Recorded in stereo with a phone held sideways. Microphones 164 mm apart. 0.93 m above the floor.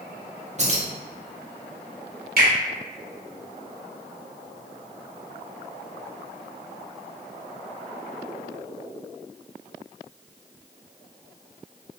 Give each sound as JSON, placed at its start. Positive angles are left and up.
{"t": 0.6, "sound": "keys jangling", "side_deg": -45, "distance_m": 0.6}
{"t": 2.4, "sound": "a finger snap", "side_deg": -65, "distance_m": 1.2}